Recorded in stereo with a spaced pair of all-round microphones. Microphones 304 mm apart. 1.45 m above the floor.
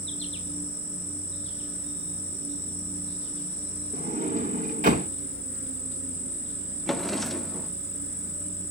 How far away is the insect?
About 5 m.